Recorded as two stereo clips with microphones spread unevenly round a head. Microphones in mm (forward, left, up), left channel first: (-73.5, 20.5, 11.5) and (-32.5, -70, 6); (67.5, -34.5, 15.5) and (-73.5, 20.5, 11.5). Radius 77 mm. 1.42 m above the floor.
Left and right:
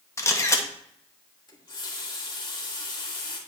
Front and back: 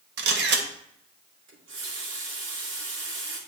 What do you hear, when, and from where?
0.2 s a camera shutter: 175° left, 1.3 m
1.5 s a running tap: 155° left, 2.0 m